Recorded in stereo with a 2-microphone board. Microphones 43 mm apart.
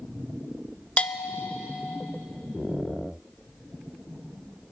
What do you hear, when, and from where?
1.0 s a bell: 30° left (ahead or behind), 0.5 m